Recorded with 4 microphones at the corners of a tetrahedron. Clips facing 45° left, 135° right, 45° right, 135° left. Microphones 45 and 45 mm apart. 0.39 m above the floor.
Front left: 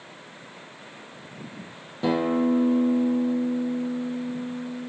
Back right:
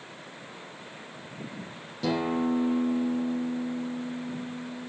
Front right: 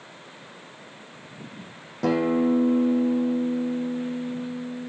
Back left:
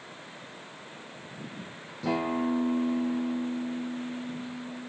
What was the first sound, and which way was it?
A guitar, 20° right.